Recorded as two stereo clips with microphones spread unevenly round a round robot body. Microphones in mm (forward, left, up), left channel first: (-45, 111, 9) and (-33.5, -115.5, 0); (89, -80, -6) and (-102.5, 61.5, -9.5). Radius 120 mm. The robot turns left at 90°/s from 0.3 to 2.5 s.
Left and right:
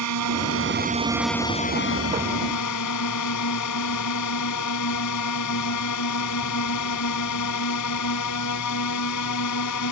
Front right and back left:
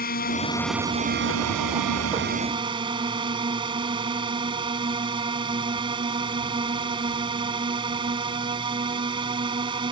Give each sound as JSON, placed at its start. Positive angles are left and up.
{"t": 0.0, "sound": "a drone", "azimuth_deg": -90}